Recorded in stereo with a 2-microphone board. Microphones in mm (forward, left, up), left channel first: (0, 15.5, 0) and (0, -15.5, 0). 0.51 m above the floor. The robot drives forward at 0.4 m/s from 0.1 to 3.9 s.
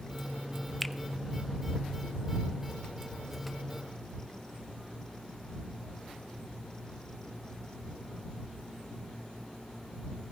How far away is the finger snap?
About 0.6 m.